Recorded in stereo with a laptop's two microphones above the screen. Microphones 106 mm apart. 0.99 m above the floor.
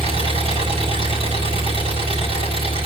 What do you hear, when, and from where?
0.0 s an engine running: 70° right (ahead or behind), 5 m